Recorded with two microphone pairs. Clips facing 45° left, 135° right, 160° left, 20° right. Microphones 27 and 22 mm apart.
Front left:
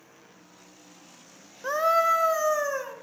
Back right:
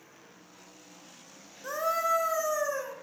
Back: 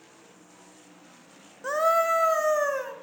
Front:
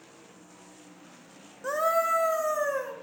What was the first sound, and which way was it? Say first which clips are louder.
A scream: front left 6 dB, back 3 dB; 90° left.